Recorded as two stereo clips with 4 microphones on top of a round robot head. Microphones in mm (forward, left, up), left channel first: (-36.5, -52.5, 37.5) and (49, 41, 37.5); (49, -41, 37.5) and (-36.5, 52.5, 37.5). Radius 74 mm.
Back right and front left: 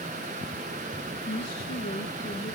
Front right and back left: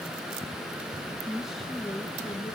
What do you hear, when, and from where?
1.3 s a woman speaking: 145° right, 1.1 m; by 2.5 s 120° right, 1.4 m